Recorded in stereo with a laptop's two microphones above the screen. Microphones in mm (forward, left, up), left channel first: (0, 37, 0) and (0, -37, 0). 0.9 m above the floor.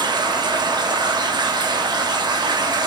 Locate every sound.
0.0 s running water: 90° right, 1.0 m